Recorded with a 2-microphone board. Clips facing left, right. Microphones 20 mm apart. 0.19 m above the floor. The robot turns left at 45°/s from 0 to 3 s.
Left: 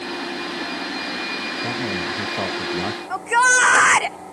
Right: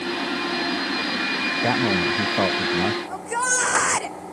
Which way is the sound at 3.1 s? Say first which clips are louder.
Left 8 dB; 50° left (ahead or behind).